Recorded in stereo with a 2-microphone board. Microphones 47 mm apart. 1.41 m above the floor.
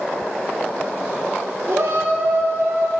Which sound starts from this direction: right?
A shout, at 1.7 s.